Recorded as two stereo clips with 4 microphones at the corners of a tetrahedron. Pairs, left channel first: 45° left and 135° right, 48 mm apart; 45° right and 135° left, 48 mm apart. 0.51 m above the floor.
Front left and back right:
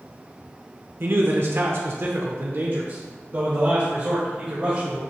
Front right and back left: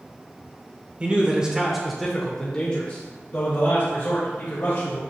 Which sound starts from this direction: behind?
A man speaking, at 1.0 s.